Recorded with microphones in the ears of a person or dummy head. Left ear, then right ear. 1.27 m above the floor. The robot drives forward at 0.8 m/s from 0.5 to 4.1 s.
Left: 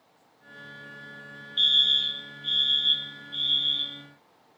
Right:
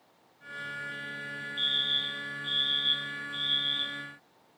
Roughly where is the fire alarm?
Left.